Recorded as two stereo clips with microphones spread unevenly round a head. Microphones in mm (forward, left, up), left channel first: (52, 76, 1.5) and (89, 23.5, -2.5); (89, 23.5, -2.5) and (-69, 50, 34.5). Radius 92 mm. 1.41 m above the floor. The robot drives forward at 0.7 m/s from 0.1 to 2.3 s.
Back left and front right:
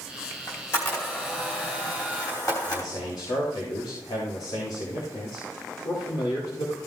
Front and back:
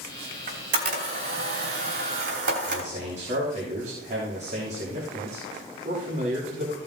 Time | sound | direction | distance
0.5 | a camera shutter | 170° right | 2 m
2.7 | a man speaking | 125° left | 3.5 m